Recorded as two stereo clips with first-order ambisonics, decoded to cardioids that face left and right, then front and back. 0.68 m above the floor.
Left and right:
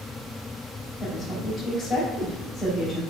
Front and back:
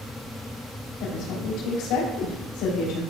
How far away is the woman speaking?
About 4 m.